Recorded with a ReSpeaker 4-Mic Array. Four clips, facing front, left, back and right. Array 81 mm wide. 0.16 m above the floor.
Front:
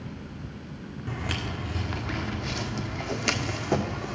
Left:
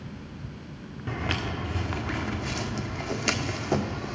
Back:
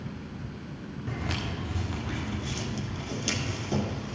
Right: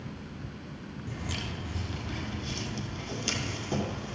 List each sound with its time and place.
1.1 s footsteps: 85° left, 1.5 m; by 4.2 s 35° left, 2 m